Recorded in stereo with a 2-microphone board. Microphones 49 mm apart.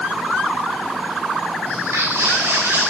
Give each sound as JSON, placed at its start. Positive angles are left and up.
{"t": 1.6, "sound": "footsteps", "side_deg": -80, "distance_m": 2.0}